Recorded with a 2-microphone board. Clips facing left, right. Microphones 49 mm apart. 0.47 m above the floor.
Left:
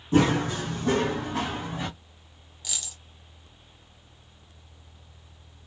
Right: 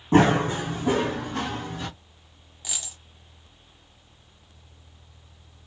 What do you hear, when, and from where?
0.1 s running footsteps: 45° right (ahead or behind), 1.2 m; by 1.9 s 20° left (ahead or behind), 1.7 m
2.6 s a dropped coin: 20° right (ahead or behind), 1.1 m